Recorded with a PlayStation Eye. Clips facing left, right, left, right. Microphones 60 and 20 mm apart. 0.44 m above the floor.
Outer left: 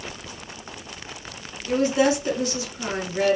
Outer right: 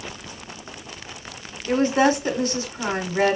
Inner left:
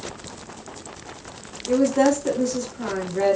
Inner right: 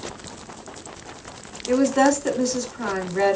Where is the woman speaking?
40° right (ahead or behind), 0.9 m.